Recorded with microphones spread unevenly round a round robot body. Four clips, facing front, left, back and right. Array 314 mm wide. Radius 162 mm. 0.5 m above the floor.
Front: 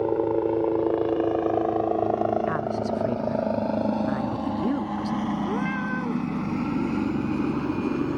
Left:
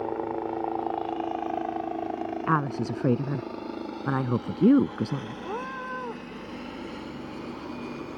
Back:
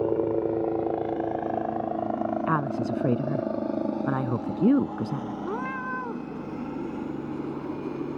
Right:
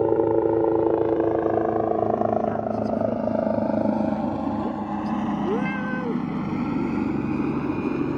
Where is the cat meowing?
105° right.